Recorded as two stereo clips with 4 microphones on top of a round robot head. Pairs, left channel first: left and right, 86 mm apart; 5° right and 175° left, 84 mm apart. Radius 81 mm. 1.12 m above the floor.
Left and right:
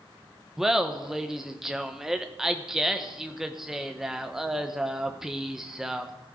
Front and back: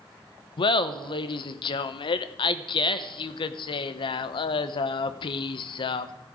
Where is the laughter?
5° right, 0.7 m.